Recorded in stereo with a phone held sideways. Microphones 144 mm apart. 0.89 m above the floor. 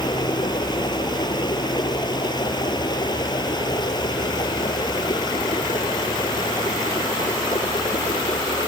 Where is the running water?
30° left (ahead or behind).